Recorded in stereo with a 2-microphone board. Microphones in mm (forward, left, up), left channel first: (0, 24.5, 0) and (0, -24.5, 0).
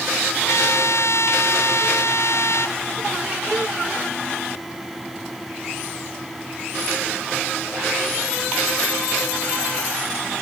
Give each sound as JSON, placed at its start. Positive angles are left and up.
{"t": 0.5, "sound": "a trumpet", "side_deg": 75}